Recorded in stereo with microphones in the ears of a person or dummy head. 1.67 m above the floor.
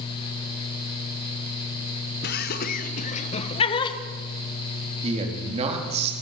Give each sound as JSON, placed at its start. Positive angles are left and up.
{"t": 2.2, "sound": "laughter", "side_deg": 55, "distance_m": 1.7}
{"t": 5.0, "sound": "a man speaking", "side_deg": -35, "distance_m": 4.0}